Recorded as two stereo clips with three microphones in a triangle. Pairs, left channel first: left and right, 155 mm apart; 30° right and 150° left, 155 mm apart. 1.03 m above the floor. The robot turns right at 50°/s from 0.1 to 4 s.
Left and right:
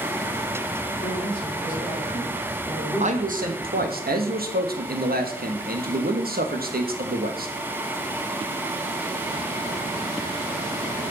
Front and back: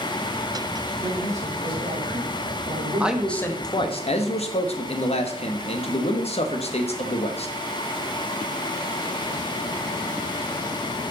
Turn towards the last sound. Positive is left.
turn(degrees=-80)